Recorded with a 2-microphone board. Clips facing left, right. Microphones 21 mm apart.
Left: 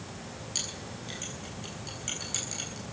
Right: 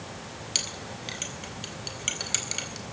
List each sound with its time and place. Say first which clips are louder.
0.6 s a clink: right 5 dB; 50° right (ahead or behind), 4 m